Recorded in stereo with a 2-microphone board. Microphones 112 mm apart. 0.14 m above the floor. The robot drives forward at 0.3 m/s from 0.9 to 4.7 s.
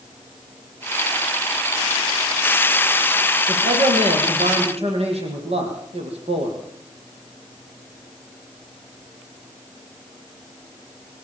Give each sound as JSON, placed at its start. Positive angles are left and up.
{"t": 3.5, "sound": "a man speaking", "side_deg": -65, "distance_m": 6.0}